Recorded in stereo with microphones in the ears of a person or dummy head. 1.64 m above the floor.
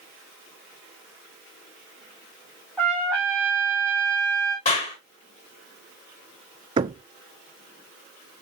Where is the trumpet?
5° left (ahead or behind), 3 m.